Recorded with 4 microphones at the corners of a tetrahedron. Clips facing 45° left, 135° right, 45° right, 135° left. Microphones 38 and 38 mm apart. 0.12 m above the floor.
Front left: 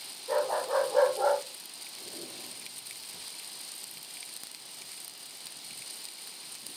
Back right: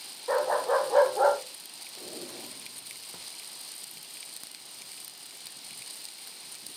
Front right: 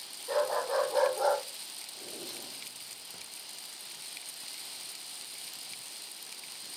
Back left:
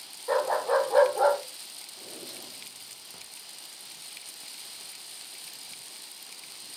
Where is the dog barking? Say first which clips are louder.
Back right 3 dB, back left 5 dB; 170° right, 5.5 m; by 1.4 s 165° right, 4 m.